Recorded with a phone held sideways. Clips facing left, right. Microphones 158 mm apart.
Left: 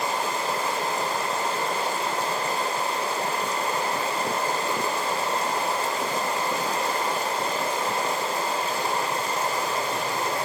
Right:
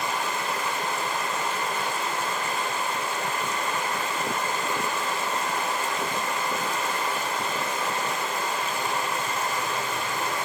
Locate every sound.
0.0 s running water: 35° left (ahead or behind), 0.9 m